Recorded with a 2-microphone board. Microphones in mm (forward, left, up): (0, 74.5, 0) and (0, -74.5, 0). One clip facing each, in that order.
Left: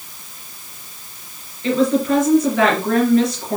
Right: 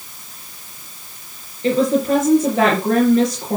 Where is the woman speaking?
35° right (ahead or behind), 3 m.